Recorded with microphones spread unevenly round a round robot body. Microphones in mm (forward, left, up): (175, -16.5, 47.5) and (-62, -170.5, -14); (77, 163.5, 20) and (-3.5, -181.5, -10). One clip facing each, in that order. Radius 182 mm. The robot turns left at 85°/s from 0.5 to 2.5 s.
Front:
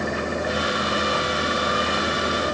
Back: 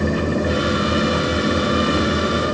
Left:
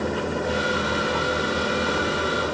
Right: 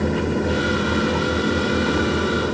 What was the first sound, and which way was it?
Only background noise.